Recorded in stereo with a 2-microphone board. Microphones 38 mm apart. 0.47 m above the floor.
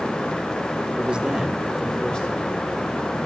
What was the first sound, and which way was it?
A man speaking, 30° right (ahead or behind).